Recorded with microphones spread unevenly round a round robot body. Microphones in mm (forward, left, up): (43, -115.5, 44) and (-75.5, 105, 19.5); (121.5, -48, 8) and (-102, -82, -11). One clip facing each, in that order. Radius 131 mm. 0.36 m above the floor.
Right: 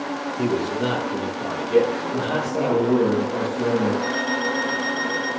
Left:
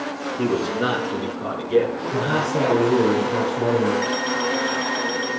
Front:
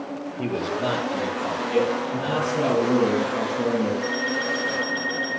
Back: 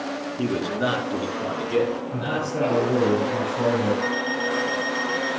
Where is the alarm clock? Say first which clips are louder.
Left 1 dB, back 1 dB; 125° left, 5.5 m.